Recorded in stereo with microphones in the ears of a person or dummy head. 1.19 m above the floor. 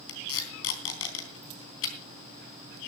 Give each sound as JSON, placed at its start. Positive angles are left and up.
{"t": 0.1, "sound": "tape being pulled", "side_deg": 75, "distance_m": 3.5}